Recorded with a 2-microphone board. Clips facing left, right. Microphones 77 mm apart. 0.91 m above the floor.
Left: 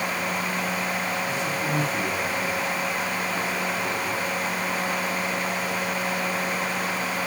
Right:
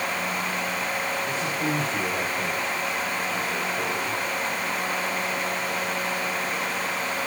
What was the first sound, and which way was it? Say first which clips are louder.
A man speaking: even; 40° right (ahead or behind).